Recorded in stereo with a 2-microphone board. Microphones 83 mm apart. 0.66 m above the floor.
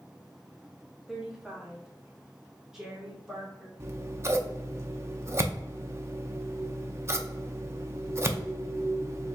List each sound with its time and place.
1.1 s a woman speaking: 5° right (ahead or behind), 1.2 m
3.8 s scissors: 35° right (ahead or behind), 0.5 m